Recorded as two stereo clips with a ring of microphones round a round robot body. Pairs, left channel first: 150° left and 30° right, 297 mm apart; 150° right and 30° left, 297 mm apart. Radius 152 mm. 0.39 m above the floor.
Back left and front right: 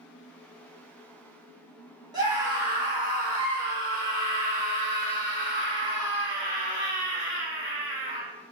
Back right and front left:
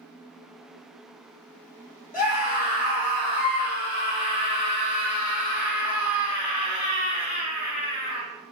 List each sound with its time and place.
2.1 s a scream: 100° right, 1.3 m